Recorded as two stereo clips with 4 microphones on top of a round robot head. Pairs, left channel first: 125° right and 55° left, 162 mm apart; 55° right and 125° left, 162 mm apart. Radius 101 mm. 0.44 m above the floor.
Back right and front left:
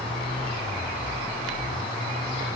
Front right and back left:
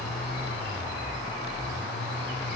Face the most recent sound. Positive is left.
No sound to turn to.